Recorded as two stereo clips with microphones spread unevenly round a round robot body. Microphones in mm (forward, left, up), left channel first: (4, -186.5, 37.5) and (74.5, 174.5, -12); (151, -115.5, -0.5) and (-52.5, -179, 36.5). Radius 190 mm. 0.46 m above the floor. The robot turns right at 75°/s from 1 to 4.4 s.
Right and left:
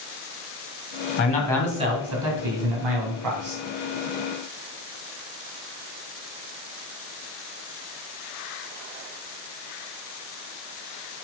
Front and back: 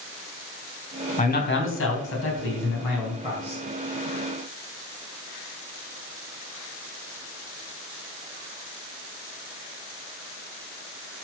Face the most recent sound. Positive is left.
turn(degrees=-155)